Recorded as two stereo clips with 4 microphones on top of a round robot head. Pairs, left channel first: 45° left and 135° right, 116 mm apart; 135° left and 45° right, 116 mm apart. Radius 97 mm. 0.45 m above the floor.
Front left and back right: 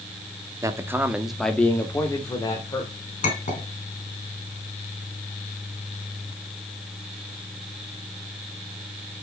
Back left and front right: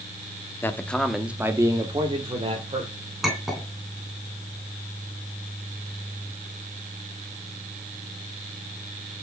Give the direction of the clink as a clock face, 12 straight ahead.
11 o'clock.